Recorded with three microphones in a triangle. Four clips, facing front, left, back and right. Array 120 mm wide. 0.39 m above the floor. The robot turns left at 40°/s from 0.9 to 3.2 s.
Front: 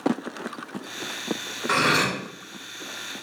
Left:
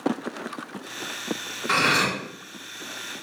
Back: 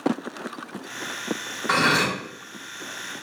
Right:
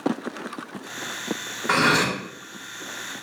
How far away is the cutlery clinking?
About 0.7 m.